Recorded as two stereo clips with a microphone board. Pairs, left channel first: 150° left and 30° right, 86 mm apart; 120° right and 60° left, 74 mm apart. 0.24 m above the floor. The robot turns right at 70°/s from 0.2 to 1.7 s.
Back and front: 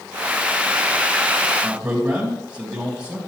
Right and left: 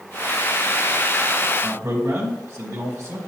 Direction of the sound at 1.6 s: 40° left.